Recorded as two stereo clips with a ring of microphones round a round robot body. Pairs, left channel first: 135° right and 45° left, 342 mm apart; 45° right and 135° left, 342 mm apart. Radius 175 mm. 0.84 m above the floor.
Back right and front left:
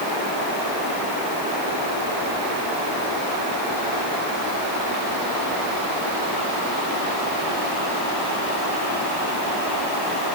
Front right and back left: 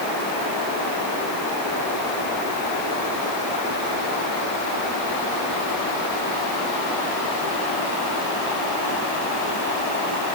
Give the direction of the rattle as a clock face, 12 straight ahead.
No rattle in this recording.